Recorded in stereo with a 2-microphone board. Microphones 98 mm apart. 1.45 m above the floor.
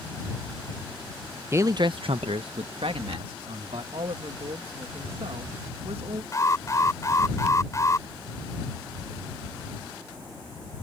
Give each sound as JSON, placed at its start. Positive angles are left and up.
{"t": 1.5, "sound": "a man speaking", "side_deg": -25}
{"t": 3.9, "sound": "a woman speaking", "side_deg": -80}
{"t": 6.3, "sound": "an alarm", "side_deg": 30}